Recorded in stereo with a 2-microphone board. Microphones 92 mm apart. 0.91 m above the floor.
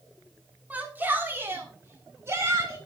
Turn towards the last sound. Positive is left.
turn(degrees=-35)  # may be behind; listen again after turning